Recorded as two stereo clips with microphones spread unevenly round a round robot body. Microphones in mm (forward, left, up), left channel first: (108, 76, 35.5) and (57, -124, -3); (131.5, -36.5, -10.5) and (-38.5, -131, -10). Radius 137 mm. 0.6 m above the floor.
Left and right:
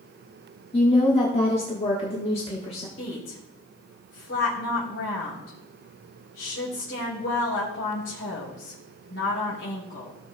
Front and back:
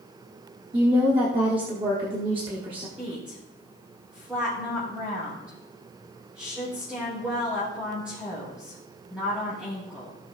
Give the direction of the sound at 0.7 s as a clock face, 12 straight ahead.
7 o'clock.